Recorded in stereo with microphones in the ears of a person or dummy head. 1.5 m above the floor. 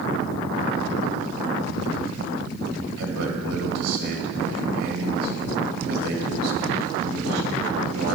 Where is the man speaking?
85° right, 1.8 m.